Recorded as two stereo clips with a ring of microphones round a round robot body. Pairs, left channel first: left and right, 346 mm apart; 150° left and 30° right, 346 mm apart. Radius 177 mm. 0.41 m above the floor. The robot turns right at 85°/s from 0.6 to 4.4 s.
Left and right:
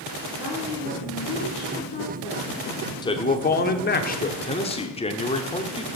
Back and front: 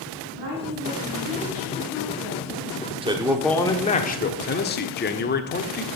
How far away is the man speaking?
About 1.0 m.